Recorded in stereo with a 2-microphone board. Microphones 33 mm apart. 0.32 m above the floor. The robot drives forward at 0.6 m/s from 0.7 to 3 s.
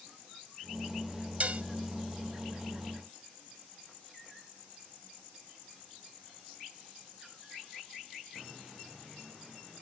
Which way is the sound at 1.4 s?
45° right (ahead or behind).